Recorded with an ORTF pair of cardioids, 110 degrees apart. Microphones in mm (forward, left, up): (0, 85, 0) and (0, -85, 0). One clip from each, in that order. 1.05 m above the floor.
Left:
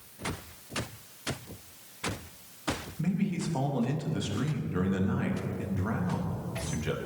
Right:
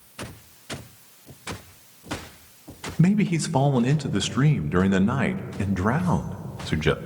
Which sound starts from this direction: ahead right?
A man speaking, at 3.0 s.